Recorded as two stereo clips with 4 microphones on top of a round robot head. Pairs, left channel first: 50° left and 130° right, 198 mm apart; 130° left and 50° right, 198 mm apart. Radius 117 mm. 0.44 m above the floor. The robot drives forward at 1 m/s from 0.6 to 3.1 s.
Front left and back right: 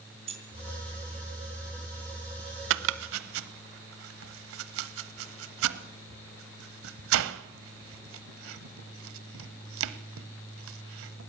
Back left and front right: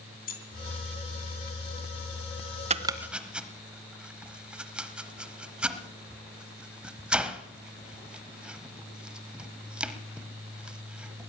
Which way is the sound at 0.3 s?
170° left.